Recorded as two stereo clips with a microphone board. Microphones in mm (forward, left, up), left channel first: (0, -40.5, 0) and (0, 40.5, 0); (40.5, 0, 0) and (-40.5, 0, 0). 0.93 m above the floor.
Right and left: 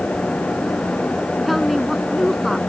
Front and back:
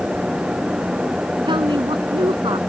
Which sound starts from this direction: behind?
A woman speaking, at 1.5 s.